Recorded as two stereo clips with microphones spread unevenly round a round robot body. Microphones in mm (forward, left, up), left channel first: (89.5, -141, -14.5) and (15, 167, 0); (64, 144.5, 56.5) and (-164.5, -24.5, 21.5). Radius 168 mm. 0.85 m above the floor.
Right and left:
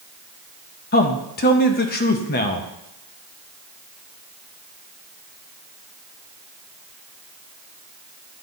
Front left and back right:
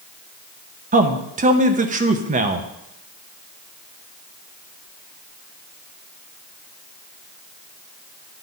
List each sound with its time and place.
0.9 s a man speaking: 115° right, 0.7 m